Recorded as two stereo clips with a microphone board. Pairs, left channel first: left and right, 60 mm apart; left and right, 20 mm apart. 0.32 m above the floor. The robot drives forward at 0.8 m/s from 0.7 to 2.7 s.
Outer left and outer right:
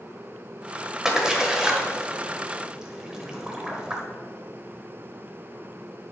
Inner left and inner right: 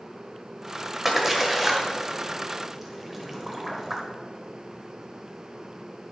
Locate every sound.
1.1 s a splash: 10° right (ahead or behind), 1.5 m